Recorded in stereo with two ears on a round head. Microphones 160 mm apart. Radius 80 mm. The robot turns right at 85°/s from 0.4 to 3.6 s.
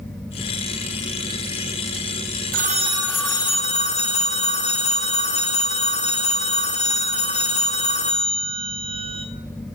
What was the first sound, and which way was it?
A phone ringing, 55° right.